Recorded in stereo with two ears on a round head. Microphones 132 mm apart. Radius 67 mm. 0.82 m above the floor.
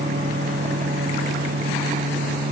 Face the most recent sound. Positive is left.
No sound to turn to.